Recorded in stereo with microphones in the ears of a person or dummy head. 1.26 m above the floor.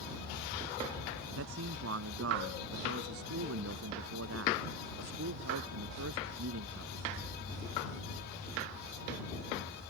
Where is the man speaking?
90° right; by 7.2 s 65° right (ahead or behind).